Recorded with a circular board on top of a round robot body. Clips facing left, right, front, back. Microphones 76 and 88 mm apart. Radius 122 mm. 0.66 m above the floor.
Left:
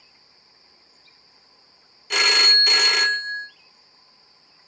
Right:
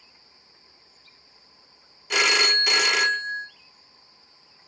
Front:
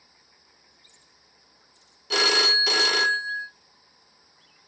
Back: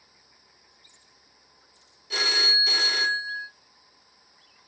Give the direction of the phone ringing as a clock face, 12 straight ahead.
12 o'clock.